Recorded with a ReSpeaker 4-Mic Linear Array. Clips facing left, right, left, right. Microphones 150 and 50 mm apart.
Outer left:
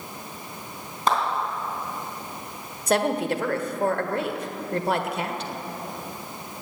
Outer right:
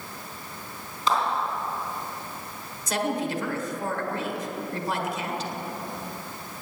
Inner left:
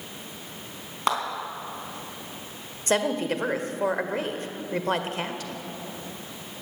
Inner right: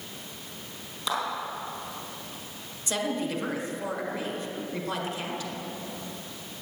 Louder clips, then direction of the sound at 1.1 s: Outer left 2 dB, inner left 5 dB; 55° left (ahead or behind).